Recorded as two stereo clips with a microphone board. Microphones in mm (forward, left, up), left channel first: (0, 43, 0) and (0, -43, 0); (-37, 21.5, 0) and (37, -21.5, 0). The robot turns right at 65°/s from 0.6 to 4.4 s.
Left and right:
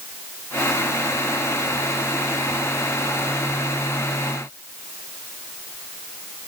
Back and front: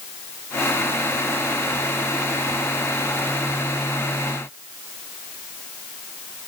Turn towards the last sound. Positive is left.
No sound to turn to.